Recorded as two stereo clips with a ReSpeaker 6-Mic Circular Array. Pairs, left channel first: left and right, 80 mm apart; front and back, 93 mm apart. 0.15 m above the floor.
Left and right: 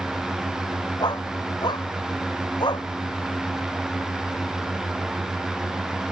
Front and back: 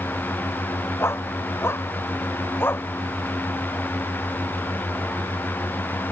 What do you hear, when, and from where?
1.0 s a dog barking: 60° left; by 2.9 s 65° left